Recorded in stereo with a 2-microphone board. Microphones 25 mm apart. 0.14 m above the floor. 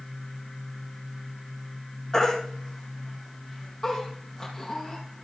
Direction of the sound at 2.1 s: 15° left (ahead or behind).